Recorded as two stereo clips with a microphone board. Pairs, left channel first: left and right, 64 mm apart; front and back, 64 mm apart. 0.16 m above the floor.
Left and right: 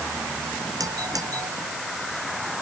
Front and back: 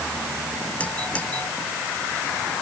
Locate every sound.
0.8 s a doorbell: 70° right